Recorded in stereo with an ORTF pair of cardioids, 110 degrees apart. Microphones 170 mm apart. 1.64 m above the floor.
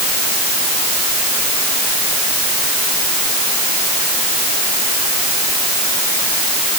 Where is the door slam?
I don't hear a door slam.